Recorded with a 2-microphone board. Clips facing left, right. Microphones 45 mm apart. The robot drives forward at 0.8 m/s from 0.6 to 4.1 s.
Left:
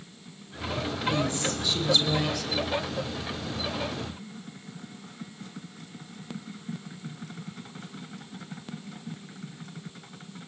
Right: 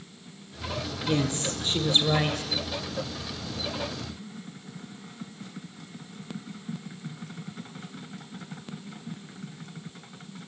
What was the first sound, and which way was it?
A woman speaking, 45° right (ahead or behind).